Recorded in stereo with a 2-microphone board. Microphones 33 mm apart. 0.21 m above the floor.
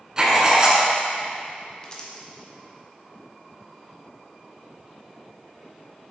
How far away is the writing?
About 1.2 m.